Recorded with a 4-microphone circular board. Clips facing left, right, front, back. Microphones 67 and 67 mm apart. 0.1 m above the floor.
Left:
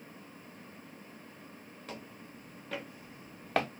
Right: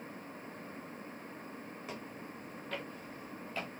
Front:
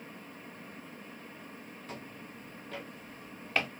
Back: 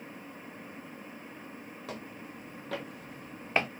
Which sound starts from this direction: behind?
Footsteps, at 1.9 s.